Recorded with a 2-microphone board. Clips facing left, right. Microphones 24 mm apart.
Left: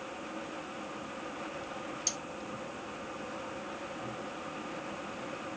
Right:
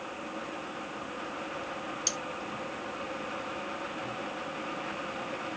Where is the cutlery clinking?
30° right (ahead or behind), 1.0 m.